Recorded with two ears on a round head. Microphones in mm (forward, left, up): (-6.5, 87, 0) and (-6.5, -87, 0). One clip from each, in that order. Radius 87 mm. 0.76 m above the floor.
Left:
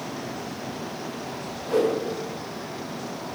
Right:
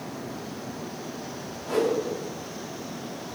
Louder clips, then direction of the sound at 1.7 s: Left 2 dB; 10° right (ahead or behind).